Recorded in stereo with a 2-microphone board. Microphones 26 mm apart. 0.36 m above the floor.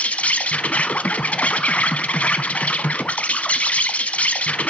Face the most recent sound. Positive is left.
turn(degrees=75)  # may be behind; listen again after turning